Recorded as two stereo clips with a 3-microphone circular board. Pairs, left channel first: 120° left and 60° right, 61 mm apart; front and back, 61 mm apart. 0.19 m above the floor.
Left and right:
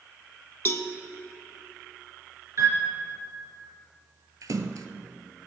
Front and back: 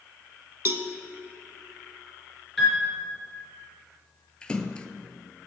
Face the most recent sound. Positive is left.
turn(degrees=-75)